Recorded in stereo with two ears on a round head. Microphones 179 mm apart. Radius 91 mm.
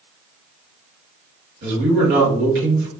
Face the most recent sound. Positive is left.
turn(degrees=-45)  # may be behind; listen again after turning